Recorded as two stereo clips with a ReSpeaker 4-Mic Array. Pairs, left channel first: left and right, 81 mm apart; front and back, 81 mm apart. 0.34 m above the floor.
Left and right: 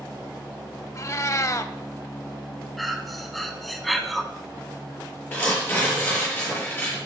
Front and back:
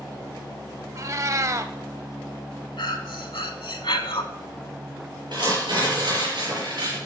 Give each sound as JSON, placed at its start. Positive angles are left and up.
{"t": 0.9, "sound": "a cat meowing", "azimuth_deg": 135, "distance_m": 0.6}
{"t": 2.8, "sound": "breathing", "azimuth_deg": 0, "distance_m": 0.8}
{"t": 5.3, "sound": "tearing paper", "azimuth_deg": 155, "distance_m": 5.5}